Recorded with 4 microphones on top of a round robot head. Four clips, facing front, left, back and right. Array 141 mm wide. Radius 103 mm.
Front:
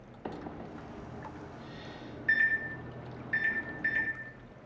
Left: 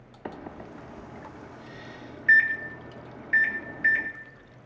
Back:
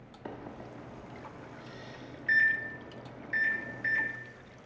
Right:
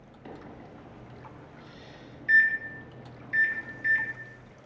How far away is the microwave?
About 0.8 m.